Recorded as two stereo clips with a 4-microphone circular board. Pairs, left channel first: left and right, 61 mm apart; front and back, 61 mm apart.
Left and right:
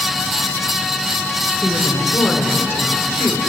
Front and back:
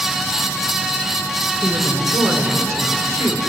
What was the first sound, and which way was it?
A woman speaking, 145° left.